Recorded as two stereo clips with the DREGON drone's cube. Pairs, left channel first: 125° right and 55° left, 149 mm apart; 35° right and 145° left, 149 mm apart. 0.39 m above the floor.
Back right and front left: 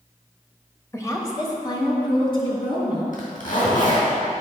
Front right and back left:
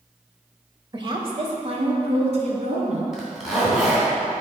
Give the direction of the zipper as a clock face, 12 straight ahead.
4 o'clock.